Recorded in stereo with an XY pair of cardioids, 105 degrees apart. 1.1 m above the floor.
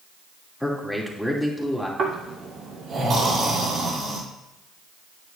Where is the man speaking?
Straight ahead, 2.5 m.